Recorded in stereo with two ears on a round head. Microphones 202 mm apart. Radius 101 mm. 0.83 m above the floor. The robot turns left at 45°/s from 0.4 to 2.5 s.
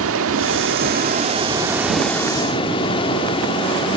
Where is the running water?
110° right, 1.7 m; by 4.0 s 155° left, 1.7 m.